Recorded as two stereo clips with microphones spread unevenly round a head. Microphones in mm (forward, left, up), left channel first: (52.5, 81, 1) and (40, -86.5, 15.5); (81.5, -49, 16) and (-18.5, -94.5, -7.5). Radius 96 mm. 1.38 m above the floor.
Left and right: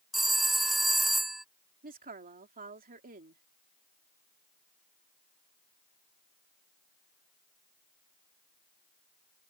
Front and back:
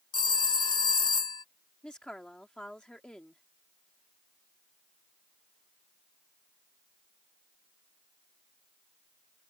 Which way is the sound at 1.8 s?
60° right.